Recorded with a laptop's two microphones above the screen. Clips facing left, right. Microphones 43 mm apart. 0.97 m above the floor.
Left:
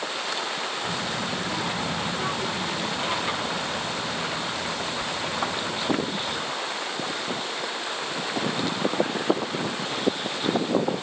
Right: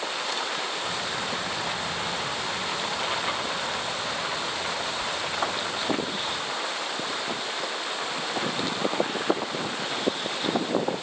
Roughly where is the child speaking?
Left.